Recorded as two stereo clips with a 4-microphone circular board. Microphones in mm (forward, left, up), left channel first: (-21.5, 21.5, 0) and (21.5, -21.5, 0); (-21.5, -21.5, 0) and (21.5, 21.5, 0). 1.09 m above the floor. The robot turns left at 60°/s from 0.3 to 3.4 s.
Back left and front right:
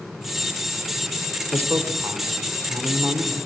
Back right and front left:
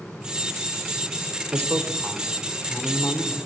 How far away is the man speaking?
About 3 m.